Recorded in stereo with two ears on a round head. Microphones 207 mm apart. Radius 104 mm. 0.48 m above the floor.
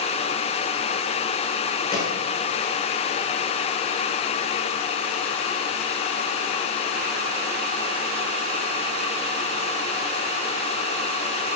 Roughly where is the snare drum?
Centre.